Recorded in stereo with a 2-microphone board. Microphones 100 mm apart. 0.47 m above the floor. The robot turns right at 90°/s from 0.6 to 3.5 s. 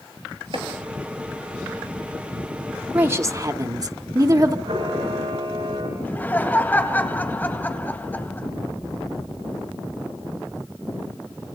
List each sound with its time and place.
0.5 s chopping: 60° right (ahead or behind), 3 m; by 0.7 s 65° right (ahead or behind), 3 m
2.9 s a woman speaking: 155° right, 1.1 m; by 4.5 s 105° right, 1.1 m
4.7 s a camera shutter: 75° right (ahead or behind), 10 m
6.0 s laughter: 20° left (ahead or behind), 3.5 m